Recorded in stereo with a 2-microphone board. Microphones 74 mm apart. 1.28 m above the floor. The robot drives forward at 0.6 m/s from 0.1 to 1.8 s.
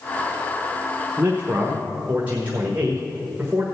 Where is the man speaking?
30° right (ahead or behind), 0.9 m; by 3.6 s 20° right (ahead or behind), 1.3 m.